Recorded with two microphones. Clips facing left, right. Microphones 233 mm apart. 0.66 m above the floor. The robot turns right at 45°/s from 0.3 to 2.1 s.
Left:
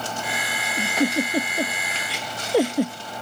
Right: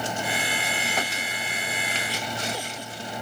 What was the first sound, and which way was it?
A giggle, 50° left (ahead or behind).